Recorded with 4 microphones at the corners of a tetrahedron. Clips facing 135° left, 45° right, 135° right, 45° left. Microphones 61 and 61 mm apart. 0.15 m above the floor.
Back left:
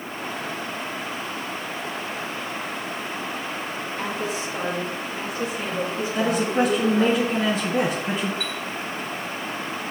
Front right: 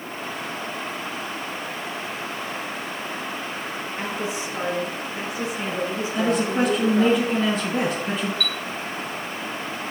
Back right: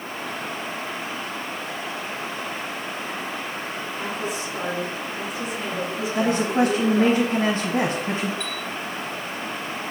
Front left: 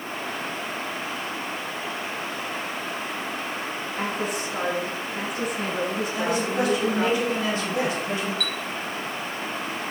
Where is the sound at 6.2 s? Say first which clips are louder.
Even, back right 5 dB; 140° right, 1.3 m.